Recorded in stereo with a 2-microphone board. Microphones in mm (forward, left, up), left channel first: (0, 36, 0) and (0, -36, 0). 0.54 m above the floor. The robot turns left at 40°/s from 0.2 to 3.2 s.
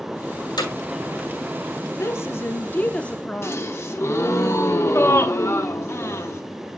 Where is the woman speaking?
70° left, 0.8 m; by 3.8 s 20° left, 0.8 m.